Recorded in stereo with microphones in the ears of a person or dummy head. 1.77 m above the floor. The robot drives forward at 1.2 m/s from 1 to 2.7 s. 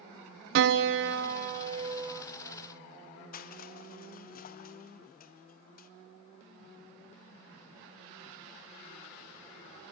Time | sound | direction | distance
0.6 | a piano | 60° right (ahead or behind) | 0.7 m
3.3 | crushing | 45° left (ahead or behind) | 0.9 m